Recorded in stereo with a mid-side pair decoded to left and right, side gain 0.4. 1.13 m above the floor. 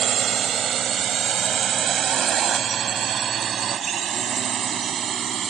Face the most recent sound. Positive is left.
turn(degrees=-55)